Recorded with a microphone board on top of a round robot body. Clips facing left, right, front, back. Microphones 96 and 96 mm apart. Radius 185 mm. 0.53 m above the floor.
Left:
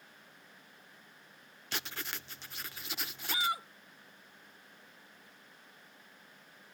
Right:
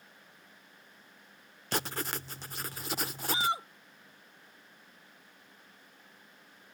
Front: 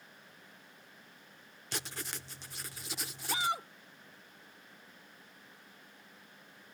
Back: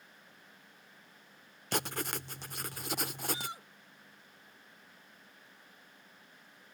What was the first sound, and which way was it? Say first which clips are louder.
Writing: right 7 dB, back 7 dB; 140° right.